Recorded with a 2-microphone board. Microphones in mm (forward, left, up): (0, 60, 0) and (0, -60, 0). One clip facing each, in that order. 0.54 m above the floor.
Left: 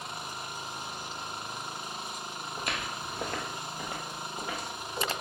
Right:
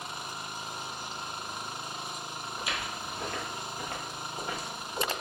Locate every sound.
2.6 s footsteps: 55° left (ahead or behind), 0.9 m; by 5.1 s 10° right (ahead or behind), 1.4 m